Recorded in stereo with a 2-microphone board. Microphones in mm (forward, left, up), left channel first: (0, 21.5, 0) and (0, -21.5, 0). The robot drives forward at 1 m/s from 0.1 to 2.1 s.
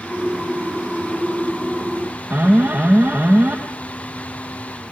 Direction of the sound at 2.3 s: 30° right (ahead or behind).